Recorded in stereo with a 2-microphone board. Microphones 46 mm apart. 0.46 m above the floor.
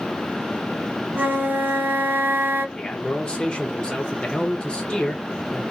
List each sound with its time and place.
1.1 s a flute: 45° right (ahead or behind), 0.9 m
2.8 s a man speaking: 20° left (ahead or behind), 1.0 m